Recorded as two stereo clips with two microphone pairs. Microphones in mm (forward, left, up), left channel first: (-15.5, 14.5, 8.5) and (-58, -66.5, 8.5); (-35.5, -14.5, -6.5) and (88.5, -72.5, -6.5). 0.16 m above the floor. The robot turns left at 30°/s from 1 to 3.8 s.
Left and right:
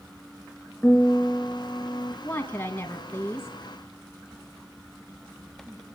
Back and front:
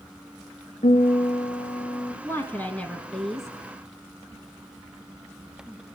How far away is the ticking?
No ticking in this recording.